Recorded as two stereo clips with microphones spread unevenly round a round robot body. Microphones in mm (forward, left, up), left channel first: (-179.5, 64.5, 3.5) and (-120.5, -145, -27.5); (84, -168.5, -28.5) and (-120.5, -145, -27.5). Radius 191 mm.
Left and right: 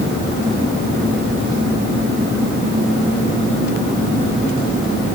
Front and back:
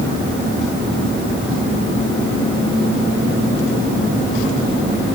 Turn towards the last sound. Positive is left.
No sound to turn to.